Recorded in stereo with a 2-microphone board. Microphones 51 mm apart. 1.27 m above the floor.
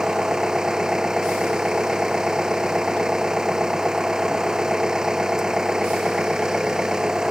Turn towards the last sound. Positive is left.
turn(degrees=-10)  # may be behind; listen again after turning